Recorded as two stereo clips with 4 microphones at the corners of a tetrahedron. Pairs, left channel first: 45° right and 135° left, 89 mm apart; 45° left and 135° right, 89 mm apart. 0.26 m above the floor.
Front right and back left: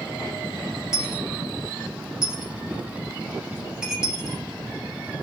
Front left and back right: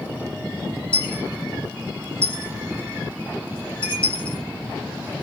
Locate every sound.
0.9 s a dropped coin: 55° left, 2 m